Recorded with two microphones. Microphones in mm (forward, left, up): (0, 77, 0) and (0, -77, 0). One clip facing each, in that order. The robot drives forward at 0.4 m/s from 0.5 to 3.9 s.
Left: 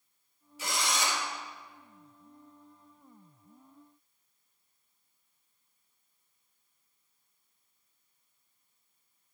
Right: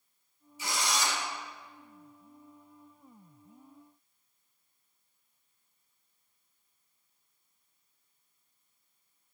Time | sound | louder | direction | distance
0.6 | a drill | even | 75° left (ahead or behind) | 3.5 m